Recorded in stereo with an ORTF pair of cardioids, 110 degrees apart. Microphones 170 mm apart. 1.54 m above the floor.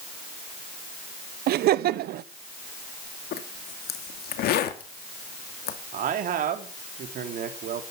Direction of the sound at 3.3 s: 70° left.